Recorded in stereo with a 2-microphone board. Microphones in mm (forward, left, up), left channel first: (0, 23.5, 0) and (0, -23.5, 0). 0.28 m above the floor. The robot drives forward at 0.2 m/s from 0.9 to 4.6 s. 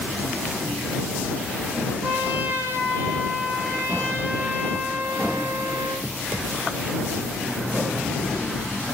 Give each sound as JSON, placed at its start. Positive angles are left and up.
{"t": 2.0, "sound": "a trumpet", "side_deg": -40, "distance_m": 3.0}